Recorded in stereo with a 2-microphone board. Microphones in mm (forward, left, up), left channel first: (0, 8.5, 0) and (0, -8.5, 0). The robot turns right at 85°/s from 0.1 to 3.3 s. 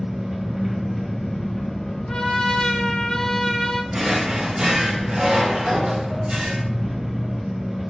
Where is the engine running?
65° right, 0.7 m; by 7.9 s 150° right, 0.7 m.